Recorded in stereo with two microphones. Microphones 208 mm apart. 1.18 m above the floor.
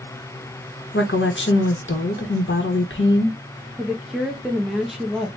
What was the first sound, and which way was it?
A woman speaking, 65° left (ahead or behind).